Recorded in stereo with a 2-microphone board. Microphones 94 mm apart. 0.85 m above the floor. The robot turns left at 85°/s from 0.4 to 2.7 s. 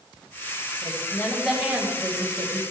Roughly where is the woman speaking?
Ahead left.